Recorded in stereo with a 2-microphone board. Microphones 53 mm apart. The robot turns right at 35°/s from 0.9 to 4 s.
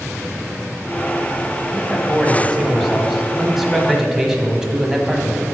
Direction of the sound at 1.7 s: 20° left (ahead or behind).